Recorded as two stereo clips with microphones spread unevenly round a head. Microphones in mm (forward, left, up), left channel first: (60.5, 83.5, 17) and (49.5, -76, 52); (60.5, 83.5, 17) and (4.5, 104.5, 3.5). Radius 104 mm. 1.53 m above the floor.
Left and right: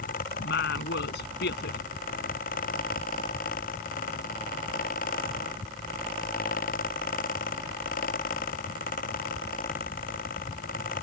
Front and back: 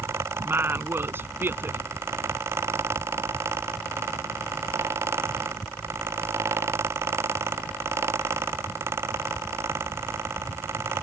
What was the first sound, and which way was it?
A woman speaking, 110° left.